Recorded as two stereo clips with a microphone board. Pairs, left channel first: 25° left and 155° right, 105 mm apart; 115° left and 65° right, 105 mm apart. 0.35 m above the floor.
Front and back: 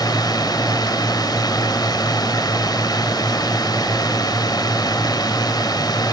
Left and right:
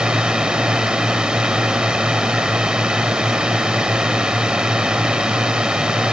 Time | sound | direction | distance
0.0 | a drone | 10° left | ?